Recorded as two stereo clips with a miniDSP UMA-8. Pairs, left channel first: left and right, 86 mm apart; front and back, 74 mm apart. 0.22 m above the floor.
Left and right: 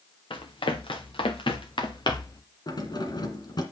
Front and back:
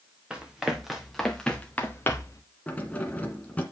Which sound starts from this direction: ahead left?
Keys jangling, at 2.7 s.